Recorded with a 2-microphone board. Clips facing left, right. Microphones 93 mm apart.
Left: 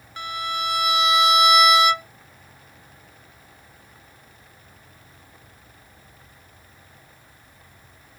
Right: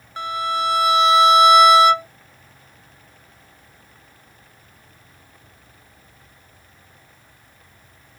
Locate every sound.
0.2 s a violin: 35° right (ahead or behind)